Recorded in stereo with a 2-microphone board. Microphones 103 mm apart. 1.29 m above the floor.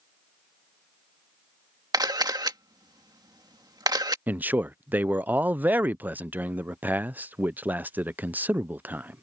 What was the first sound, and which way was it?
A camera shutter, 40° right (ahead or behind).